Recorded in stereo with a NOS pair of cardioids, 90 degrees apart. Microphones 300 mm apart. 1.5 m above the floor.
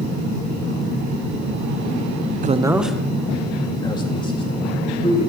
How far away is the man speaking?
About 0.7 m.